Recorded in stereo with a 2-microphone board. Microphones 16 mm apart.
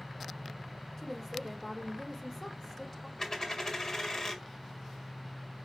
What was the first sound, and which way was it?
A woman speaking, 5° left (ahead or behind).